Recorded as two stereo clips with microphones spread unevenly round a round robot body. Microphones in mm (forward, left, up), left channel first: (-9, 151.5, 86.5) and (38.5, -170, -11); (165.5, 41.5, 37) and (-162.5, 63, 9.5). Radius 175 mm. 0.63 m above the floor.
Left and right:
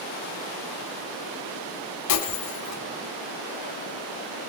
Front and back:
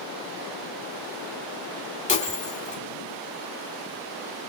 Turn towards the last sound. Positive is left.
turn(degrees=65)